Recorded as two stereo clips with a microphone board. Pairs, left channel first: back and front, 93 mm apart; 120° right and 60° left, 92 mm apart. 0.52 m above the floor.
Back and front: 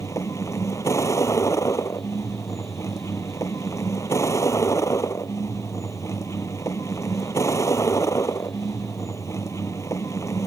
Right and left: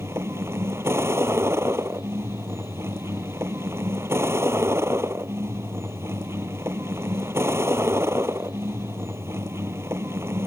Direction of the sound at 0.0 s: 120° left.